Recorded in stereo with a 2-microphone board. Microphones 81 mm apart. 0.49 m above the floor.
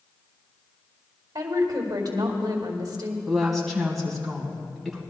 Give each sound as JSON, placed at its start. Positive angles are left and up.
{"t": 1.4, "sound": "a woman speaking", "side_deg": -55, "distance_m": 2.0}
{"t": 3.3, "sound": "a woman speaking", "side_deg": 0, "distance_m": 3.0}